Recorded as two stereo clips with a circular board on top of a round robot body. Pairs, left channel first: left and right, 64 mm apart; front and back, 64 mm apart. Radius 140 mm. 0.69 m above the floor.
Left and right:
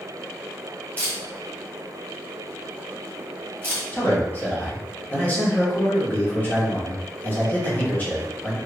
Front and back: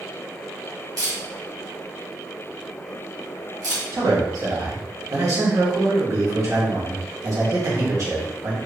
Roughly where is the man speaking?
Behind left.